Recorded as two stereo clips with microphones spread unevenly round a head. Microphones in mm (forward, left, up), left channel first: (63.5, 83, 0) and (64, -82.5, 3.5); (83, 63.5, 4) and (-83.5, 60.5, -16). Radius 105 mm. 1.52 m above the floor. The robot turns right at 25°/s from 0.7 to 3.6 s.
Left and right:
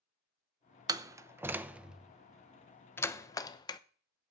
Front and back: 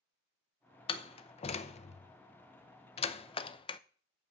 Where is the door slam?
35° right, 0.7 m; by 3.8 s 35° left, 0.7 m.